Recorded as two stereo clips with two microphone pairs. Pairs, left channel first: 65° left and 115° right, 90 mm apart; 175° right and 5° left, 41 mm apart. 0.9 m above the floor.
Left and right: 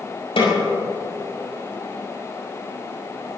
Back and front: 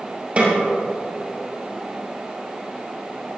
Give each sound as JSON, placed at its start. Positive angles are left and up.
{"t": 0.4, "sound": "a snare drum", "azimuth_deg": 65, "distance_m": 5.5}